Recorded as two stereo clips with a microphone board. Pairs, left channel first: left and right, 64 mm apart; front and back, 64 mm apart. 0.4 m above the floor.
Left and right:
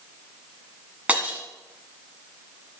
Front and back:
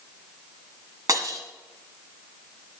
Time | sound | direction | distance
1.1 | breaking glass | 160° right | 1.9 m